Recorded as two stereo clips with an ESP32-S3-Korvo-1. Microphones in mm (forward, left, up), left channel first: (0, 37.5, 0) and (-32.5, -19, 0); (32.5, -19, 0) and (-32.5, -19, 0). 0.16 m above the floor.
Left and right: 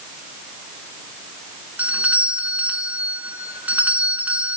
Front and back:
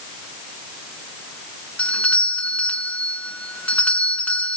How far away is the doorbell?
About 2.5 m.